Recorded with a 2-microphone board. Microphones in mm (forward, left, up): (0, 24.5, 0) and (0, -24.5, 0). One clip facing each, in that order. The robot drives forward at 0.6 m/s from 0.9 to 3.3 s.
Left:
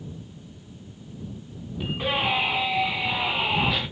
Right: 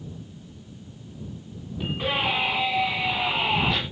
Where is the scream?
5° left (ahead or behind), 4 m.